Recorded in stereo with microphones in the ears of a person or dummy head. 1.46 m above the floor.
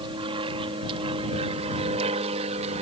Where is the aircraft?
30° right (ahead or behind); by 2.8 s 35° right (ahead or behind).